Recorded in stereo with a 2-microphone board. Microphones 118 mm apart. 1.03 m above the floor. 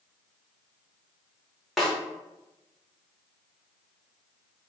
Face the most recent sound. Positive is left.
turn(degrees=0)  # may be behind; listen again after turning